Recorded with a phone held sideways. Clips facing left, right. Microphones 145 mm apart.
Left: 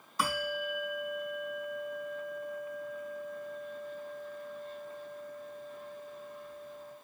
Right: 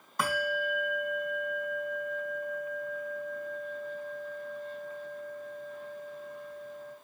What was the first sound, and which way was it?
A bell, 60° right (ahead or behind).